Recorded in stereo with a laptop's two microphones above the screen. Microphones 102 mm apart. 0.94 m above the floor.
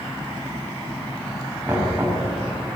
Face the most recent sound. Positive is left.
turn(degrees=-20)  # may be behind; listen again after turning